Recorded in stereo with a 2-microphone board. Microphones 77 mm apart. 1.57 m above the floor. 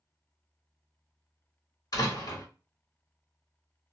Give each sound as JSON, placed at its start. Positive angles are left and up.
{"t": 1.9, "sound": "a door slam", "side_deg": 50, "distance_m": 1.5}